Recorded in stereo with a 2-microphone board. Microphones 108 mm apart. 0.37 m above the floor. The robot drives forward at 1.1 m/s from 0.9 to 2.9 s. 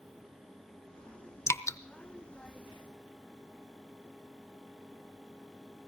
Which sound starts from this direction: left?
Dripping, at 1.5 s.